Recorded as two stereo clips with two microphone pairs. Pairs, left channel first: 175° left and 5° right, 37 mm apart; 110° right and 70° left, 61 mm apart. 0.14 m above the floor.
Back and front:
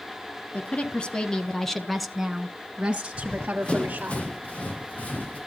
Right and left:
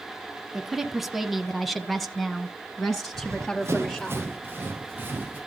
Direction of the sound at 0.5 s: 150° left.